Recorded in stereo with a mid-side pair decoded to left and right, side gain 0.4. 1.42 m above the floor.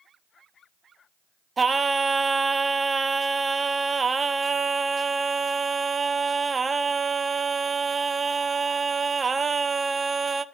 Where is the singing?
35° right, 0.5 m.